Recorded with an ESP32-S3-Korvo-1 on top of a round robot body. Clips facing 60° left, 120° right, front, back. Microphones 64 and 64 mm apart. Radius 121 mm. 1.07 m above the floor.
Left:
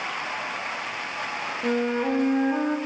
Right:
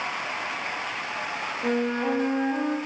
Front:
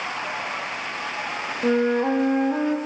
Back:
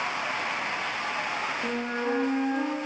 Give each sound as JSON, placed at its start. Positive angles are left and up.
{"t": 1.6, "sound": "a flute", "azimuth_deg": -25, "distance_m": 1.3}